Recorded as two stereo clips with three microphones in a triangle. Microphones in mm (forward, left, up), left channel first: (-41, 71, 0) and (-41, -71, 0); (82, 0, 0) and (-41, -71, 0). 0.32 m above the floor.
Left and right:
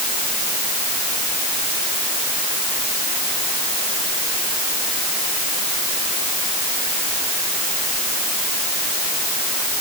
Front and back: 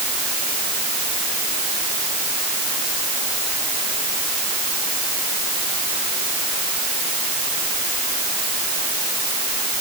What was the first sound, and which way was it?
Only background noise.